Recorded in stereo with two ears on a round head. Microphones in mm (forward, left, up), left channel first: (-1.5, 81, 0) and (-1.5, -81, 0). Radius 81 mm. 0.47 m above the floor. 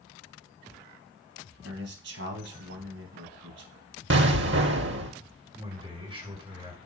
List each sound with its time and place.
1.6 s a man speaking: 75° right (ahead or behind), 3.5 m
4.1 s an explosion: 65° right (ahead or behind), 1.0 m
5.5 s a man speaking: 30° right (ahead or behind), 5 m